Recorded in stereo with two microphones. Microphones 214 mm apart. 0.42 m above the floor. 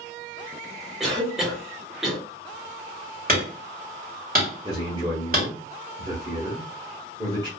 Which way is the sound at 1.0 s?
Centre (ahead or behind).